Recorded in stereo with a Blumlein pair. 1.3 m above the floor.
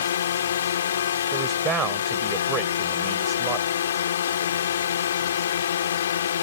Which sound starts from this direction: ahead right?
A man speaking, at 1.3 s.